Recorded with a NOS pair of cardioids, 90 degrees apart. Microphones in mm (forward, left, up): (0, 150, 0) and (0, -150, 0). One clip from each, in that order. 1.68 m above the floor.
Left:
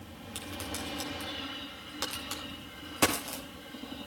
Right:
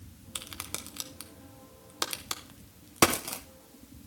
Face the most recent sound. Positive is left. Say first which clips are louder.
# left 1 dB
turn(degrees=-40)